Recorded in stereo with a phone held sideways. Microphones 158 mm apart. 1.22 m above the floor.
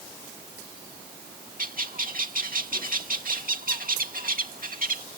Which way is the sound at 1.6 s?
60° right (ahead or behind).